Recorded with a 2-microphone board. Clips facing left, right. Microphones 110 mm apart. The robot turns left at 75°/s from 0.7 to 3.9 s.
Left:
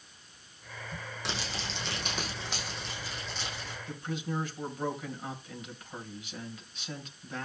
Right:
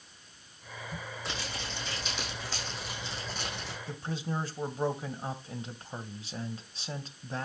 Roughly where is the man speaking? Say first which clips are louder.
Even; right.